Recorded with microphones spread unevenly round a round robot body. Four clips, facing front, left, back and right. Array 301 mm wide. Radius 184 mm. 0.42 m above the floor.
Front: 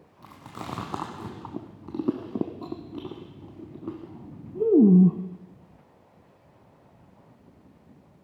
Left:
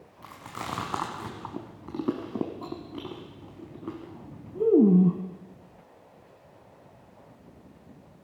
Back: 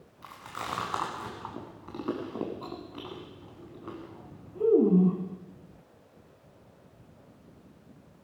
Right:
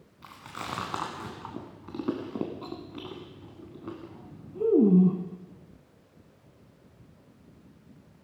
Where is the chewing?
10° left, 0.6 m.